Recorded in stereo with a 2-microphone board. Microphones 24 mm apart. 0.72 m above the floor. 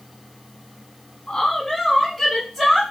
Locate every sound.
1.3 s a woman speaking: 30° left (ahead or behind), 0.6 m; by 2.8 s centre (ahead or behind), 1.6 m